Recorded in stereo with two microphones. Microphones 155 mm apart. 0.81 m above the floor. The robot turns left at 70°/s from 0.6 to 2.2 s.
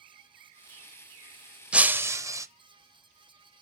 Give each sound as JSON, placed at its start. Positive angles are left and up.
{"t": 1.7, "sound": "breaking glass", "side_deg": -5, "distance_m": 0.6}